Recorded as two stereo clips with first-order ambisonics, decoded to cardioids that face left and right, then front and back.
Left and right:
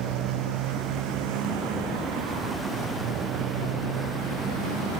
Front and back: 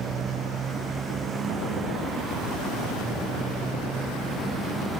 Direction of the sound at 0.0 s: 115° right.